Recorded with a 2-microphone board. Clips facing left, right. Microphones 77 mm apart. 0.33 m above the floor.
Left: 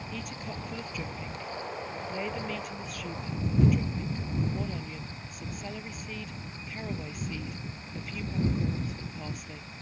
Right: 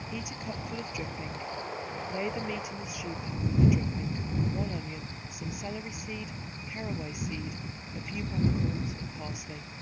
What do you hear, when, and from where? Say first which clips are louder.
0.1 s a woman speaking: right 2 dB; 10° right (ahead or behind)